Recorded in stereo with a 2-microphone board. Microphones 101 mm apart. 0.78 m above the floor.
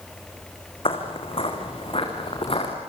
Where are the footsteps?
60° left (ahead or behind), 3.5 m.